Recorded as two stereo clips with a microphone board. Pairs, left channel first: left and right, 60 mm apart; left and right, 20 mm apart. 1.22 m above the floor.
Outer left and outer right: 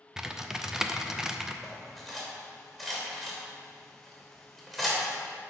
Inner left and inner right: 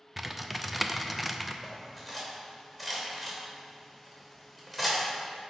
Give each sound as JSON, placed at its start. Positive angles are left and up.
{"t": 0.2, "sound": "typing on a keyboard", "side_deg": -10, "distance_m": 0.5}
{"t": 1.6, "sound": "cutlery clinking", "side_deg": -5, "distance_m": 3.0}